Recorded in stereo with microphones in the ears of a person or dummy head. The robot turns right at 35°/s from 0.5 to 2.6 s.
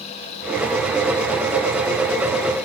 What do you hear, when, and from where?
Only background noise.